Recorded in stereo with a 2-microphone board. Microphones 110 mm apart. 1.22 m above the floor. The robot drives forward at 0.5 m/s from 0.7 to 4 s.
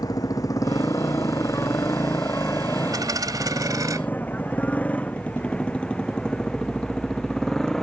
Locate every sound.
0.0 s a motorcycle: 35° left (ahead or behind); by 7.8 s 5° left (ahead or behind)
2.9 s a dropped coin: 35° right (ahead or behind); by 4.0 s 30° right (ahead or behind)